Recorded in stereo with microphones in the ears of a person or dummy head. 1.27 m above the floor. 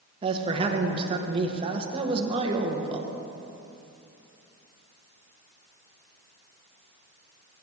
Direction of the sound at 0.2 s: 30° right (ahead or behind).